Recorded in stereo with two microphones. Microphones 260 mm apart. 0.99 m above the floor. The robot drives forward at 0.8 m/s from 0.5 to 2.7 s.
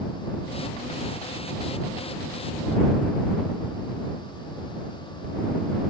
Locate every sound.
Only background noise.